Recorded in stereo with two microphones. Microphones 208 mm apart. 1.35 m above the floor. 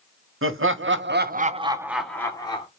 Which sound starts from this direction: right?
Laughter, at 0.4 s.